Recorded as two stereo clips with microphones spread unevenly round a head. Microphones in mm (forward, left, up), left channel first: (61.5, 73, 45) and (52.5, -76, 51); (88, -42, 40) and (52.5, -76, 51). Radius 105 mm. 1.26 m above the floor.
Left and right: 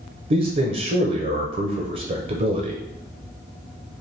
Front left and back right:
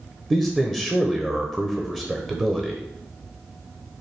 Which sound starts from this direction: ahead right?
A man speaking, at 0.3 s.